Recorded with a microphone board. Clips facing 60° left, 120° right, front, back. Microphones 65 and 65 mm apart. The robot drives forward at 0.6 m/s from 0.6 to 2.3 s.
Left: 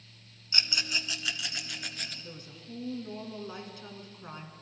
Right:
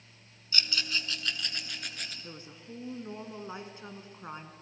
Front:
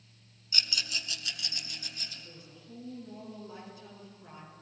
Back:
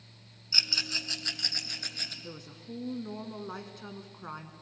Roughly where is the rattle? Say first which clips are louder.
Even, back 1 dB; behind left.